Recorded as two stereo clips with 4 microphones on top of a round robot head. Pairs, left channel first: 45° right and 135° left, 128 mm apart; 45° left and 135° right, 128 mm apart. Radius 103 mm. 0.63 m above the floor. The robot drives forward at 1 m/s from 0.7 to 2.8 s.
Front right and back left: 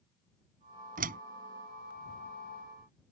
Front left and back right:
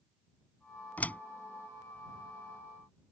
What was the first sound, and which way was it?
A door slam, 125° left.